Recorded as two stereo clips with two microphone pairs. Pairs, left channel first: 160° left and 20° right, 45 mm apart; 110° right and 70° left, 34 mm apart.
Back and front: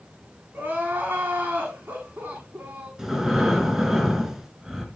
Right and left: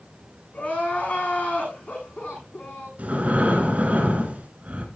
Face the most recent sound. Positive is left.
turn(degrees=55)